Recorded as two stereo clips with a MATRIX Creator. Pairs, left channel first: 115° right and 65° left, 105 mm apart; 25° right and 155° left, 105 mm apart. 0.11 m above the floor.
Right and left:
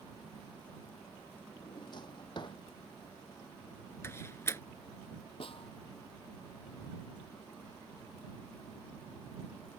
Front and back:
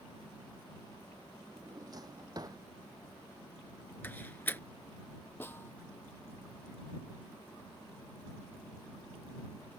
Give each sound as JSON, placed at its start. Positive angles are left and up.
{"t": 1.6, "sound": "a drawer", "azimuth_deg": -150}
{"t": 4.0, "sound": "a door slam", "azimuth_deg": -75}
{"t": 5.4, "sound": "a snare drum", "azimuth_deg": -90}